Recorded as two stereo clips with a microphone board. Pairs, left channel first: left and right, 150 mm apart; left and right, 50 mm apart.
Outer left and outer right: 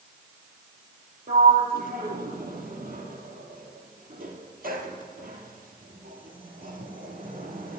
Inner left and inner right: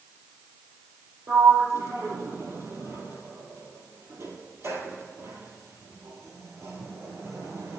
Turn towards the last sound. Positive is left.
turn(degrees=-80)